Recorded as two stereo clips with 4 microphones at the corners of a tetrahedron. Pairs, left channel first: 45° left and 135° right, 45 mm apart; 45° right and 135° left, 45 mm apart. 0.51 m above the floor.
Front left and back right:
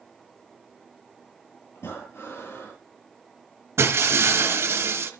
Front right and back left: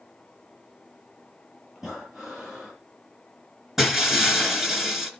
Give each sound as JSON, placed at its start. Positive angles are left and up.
{"t": 1.8, "sound": "breathing", "azimuth_deg": 50, "distance_m": 8.0}
{"t": 3.8, "sound": "breaking glass", "azimuth_deg": -145, "distance_m": 2.5}